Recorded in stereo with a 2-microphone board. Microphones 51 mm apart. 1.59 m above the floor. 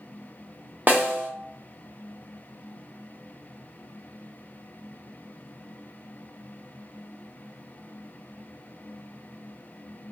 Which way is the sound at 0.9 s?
35° right (ahead or behind).